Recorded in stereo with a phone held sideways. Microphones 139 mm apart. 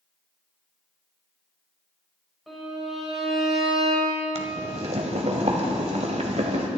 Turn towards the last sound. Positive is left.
turn(degrees=-50)  # may be behind; listen again after turning